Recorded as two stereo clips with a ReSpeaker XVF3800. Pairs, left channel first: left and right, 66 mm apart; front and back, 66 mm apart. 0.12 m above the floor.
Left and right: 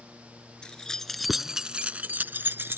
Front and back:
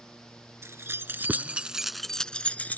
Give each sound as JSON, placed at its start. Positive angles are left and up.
{"t": 0.6, "sound": "keys jangling", "azimuth_deg": 160}